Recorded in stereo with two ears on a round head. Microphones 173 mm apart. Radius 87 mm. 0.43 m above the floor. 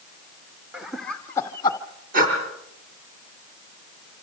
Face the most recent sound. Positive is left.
turn(degrees=-45)  # may be behind; listen again after turning